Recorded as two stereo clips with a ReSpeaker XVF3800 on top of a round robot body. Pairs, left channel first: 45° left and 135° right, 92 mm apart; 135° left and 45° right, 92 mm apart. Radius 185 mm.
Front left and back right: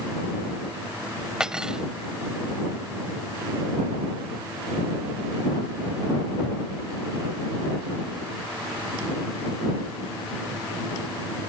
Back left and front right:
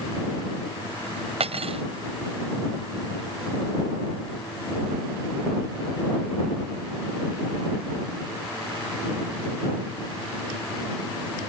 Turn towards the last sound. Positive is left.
turn(degrees=-50)